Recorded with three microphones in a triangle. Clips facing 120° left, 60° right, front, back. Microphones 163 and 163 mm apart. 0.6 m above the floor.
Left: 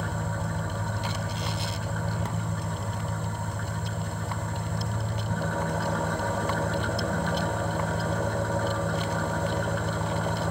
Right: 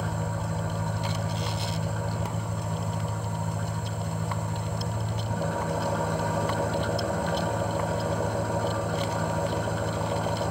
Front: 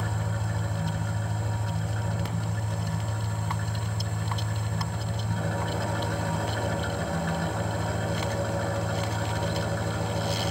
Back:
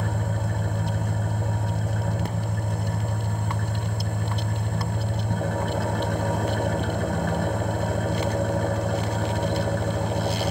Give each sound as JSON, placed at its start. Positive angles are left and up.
{"t": 0.0, "sound": "an engine running", "azimuth_deg": -140, "distance_m": 0.7}